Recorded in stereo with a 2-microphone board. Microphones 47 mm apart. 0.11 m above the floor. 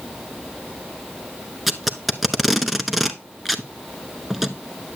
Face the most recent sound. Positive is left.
turn(degrees=0)  # may be behind; listen again after turning